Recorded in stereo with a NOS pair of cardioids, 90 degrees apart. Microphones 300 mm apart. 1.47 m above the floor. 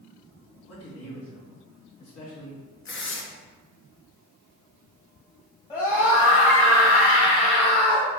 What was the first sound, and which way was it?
A man speaking, 55° left.